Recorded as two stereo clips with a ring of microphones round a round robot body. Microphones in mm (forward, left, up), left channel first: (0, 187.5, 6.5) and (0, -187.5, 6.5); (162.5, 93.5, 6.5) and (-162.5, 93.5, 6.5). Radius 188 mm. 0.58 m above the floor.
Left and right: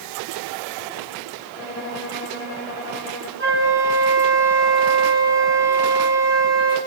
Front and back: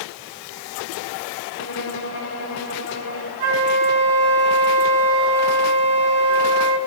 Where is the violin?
40° left, 7 m.